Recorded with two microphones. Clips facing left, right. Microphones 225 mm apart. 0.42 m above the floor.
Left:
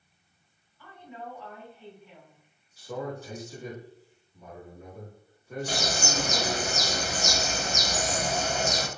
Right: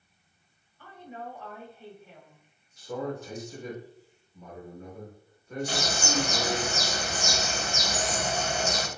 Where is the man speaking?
5° left (ahead or behind), 1.4 m.